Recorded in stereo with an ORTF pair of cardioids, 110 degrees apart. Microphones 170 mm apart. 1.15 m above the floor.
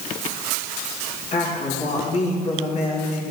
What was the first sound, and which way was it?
A woman speaking, 40° left.